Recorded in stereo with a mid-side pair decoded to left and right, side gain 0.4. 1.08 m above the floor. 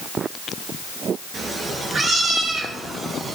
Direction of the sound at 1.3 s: 55° right.